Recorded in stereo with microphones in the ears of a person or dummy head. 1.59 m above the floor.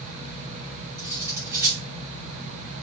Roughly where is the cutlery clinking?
Centre.